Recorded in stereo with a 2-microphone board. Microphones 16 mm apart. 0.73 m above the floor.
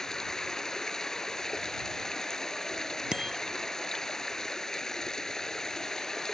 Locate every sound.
0.0 s running water: 35° left (ahead or behind)
3.1 s a bicycle bell: 45° right (ahead or behind)